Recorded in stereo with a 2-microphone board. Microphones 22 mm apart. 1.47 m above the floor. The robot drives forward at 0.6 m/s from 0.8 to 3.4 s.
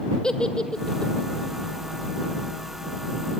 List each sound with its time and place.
0.2 s a giggle: 35° left (ahead or behind), 1.6 m; by 1.1 s 40° left (ahead or behind), 1.5 m